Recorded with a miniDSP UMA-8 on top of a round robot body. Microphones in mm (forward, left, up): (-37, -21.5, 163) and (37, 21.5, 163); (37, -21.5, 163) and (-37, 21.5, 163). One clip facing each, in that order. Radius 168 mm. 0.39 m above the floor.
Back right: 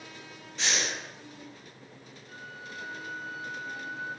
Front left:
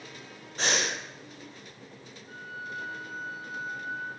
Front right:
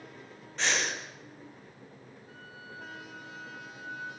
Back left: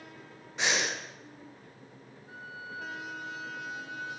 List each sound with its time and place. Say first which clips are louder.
0.6 s breathing: front left 3 dB, even; 75° left, 2.5 m
2.3 s a flute: front left 4 dB, back left 6 dB; 80° left, 6 m